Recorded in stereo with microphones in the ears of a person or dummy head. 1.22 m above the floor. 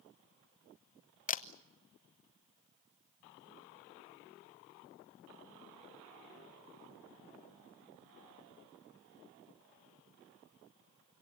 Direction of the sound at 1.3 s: 35° left (ahead or behind).